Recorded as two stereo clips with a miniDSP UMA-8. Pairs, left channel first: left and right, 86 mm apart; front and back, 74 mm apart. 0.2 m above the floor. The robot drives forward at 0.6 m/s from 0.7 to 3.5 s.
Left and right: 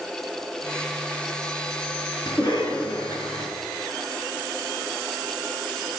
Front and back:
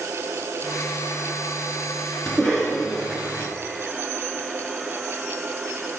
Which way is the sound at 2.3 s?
85° left.